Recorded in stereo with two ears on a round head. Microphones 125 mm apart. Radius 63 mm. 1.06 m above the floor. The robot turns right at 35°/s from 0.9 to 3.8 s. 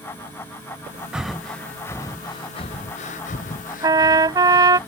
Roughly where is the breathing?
Centre.